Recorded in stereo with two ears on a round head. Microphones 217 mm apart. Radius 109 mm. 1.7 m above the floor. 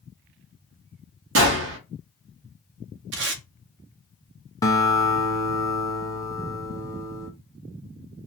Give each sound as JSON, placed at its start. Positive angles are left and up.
{"t": 1.4, "sound": "a gunshot", "side_deg": -55, "distance_m": 1.1}
{"t": 3.1, "sound": "tape being pulled", "side_deg": -50, "distance_m": 0.7}
{"t": 4.6, "sound": "a guitar", "side_deg": 15, "distance_m": 0.6}